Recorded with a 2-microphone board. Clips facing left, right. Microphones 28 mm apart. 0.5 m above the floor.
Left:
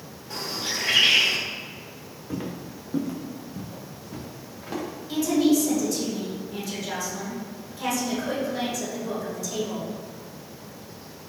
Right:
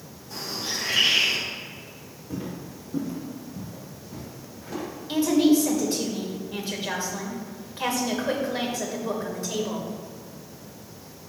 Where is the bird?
60° left (ahead or behind), 2.5 m.